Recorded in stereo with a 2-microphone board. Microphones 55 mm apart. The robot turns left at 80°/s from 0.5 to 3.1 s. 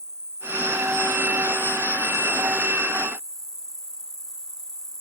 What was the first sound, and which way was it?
An insect, 85° right.